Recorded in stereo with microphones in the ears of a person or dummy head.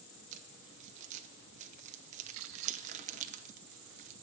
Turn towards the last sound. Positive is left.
turn(degrees=-45)  # may be behind; listen again after turning